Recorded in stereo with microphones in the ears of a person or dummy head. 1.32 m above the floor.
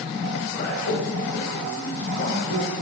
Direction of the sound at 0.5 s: 60° left (ahead or behind).